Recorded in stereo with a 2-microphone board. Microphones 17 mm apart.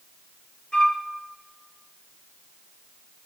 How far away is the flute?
About 2 m.